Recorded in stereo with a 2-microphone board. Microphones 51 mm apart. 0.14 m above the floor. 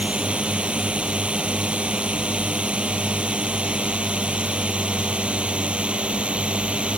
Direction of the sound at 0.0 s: 25° right (ahead or behind).